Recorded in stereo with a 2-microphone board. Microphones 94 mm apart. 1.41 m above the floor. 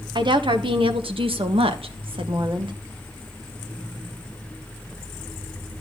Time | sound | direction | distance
0.1 | a woman speaking | 60° right (ahead or behind) | 1.5 m